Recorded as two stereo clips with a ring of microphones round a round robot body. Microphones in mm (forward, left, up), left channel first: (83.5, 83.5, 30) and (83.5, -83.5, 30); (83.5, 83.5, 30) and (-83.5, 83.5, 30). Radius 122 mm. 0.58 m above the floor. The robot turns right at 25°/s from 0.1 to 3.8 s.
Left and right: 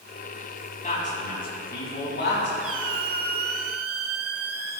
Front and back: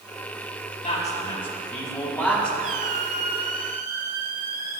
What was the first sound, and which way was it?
A man speaking, 45° left.